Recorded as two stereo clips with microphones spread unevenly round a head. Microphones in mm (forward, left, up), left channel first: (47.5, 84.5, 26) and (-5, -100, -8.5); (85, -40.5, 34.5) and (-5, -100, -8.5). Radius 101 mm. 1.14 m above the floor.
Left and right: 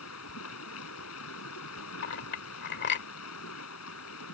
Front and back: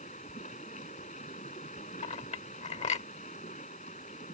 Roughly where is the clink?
Ahead left.